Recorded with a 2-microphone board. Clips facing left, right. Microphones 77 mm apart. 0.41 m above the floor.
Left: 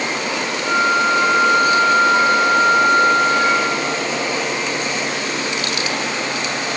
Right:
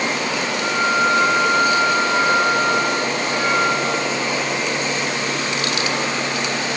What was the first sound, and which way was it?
A flute, 25° right (ahead or behind).